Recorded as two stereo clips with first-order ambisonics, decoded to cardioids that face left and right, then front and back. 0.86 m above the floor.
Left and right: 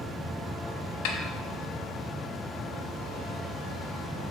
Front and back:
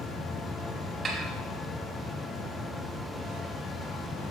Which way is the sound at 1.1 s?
110° left.